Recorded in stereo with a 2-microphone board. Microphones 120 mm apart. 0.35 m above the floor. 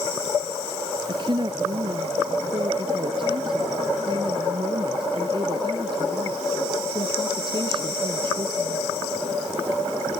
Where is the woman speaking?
45° right (ahead or behind).